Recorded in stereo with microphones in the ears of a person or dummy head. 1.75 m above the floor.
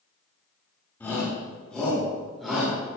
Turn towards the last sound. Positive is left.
turn(degrees=-5)  # may be behind; listen again after turning